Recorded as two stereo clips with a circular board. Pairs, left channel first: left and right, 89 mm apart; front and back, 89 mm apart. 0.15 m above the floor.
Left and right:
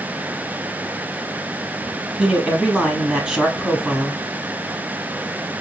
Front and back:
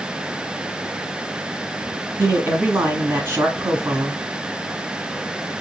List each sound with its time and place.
2.2 s a man speaking: 155° right, 1.3 m